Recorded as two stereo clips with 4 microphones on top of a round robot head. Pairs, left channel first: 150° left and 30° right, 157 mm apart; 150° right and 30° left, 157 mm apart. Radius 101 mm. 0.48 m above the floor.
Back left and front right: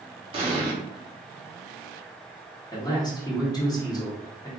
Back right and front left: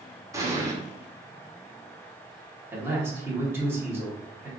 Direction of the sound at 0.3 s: 20° right.